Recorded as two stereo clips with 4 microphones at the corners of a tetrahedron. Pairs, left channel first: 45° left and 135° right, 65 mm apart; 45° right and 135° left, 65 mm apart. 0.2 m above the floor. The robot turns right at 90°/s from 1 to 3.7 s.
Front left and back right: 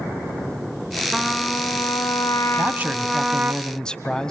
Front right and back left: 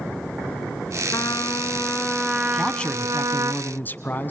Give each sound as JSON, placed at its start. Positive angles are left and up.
{"t": 1.1, "sound": "a trumpet", "azimuth_deg": -50, "distance_m": 1.5}
{"t": 2.5, "sound": "a man speaking", "azimuth_deg": -130, "distance_m": 1.7}